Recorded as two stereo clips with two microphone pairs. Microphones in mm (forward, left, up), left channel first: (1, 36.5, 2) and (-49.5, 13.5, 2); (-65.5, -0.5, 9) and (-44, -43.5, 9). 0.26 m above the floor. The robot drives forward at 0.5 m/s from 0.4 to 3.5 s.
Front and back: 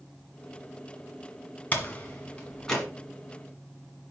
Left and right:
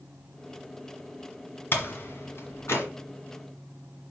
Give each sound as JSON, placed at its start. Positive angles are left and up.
{"t": 1.7, "sound": "a door slam", "azimuth_deg": 85, "distance_m": 1.6}